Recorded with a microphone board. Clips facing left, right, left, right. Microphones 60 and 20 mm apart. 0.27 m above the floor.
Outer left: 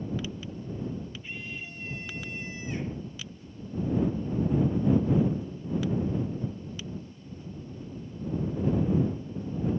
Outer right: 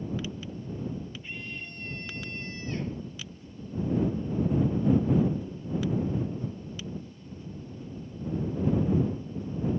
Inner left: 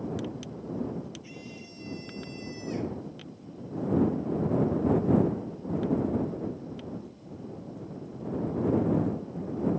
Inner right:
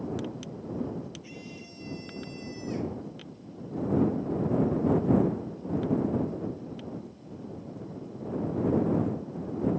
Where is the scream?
Centre (ahead or behind); by 3.0 s 15° left (ahead or behind).